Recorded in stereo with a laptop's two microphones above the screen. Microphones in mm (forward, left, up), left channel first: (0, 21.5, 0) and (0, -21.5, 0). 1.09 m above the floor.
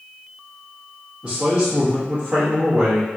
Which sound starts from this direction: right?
A man speaking, at 1.2 s.